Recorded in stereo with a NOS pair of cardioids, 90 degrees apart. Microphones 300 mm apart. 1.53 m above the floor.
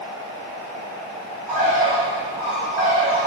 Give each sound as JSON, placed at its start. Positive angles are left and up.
{"t": 1.5, "sound": "a bird", "azimuth_deg": -25, "distance_m": 1.5}